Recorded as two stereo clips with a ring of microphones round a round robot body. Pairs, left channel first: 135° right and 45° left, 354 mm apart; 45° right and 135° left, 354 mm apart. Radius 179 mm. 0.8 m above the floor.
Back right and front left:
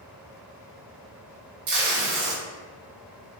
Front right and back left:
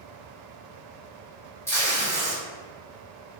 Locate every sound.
1.7 s tape being pulled: 40° left, 1.0 m